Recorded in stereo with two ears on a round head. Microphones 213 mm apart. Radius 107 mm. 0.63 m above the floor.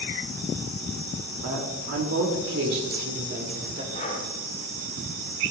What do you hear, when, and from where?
1.4 s a woman speaking: 65° right (ahead or behind), 2.5 m; by 3.8 s 30° right (ahead or behind), 2.5 m
3.9 s breathing: 30° left (ahead or behind), 2.5 m